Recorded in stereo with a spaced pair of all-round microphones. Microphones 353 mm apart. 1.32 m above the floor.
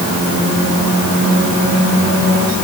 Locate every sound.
Only background noise.